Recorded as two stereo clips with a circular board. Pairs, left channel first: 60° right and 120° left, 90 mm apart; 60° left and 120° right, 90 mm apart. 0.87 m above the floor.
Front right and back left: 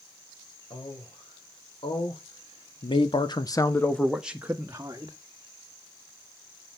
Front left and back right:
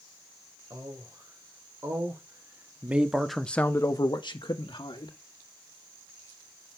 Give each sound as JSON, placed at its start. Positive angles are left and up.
{"t": 0.7, "sound": "a man speaking", "azimuth_deg": -70, "distance_m": 4.0}